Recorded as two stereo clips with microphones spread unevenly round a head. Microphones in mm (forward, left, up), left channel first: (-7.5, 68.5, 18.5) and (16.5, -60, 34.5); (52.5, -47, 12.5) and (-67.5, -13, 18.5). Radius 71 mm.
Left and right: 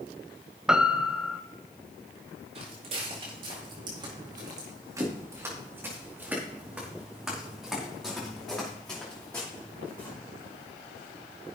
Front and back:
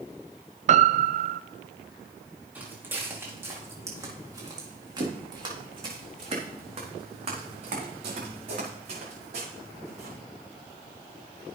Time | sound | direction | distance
0.7 | a piano | 165° right | 0.5 m
2.5 | footsteps | 120° right | 4.5 m